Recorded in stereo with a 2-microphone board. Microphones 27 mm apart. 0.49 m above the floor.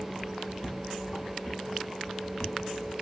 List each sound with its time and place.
0.6 s footsteps: 65° left (ahead or behind), 1.4 m; by 2.9 s 70° left (ahead or behind), 4 m